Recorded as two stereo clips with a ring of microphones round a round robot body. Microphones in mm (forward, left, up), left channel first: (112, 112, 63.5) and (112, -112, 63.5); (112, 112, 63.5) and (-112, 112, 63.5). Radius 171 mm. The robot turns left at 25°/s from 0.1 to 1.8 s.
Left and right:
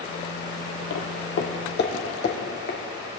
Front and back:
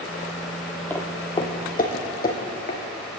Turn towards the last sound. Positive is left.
turn(degrees=45)